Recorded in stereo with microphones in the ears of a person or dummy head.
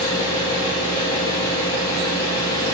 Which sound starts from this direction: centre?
An engine running, at 0.0 s.